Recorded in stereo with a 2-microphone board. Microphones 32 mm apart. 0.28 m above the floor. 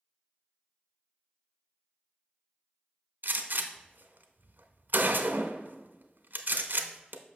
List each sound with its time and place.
3.2 s a gunshot: 75° right (ahead or behind), 0.7 m